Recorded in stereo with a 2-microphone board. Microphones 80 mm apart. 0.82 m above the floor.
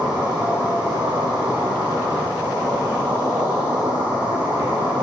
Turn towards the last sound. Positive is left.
turn(degrees=-75)  # may be behind; listen again after turning